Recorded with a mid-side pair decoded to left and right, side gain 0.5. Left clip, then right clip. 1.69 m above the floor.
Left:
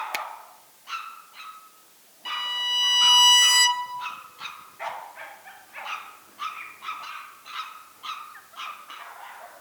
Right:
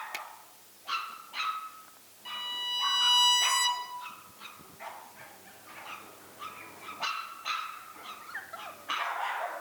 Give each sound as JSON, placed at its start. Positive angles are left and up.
{"t": 0.1, "sound": "a finger snap", "azimuth_deg": 55, "distance_m": 0.6}
{"t": 2.2, "sound": "a violin", "azimuth_deg": 65, "distance_m": 1.3}